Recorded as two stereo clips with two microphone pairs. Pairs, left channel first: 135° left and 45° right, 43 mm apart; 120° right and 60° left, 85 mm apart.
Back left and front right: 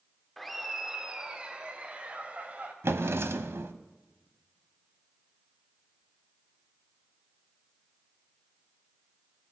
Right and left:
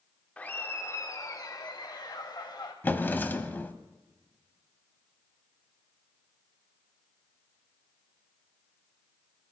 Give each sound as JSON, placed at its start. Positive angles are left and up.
{"t": 0.4, "sound": "laughter", "azimuth_deg": -150, "distance_m": 0.9}
{"t": 2.8, "sound": "a drawer", "azimuth_deg": -50, "distance_m": 1.0}